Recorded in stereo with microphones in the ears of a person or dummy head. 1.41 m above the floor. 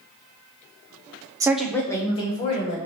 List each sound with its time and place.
1.4 s a woman speaking: 15° right (ahead or behind), 0.5 m; by 2.8 s 35° left (ahead or behind), 1.6 m